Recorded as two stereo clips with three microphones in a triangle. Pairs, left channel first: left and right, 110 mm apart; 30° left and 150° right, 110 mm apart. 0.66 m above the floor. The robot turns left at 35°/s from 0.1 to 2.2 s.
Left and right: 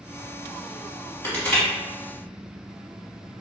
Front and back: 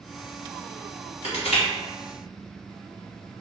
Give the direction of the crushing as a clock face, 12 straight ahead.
11 o'clock.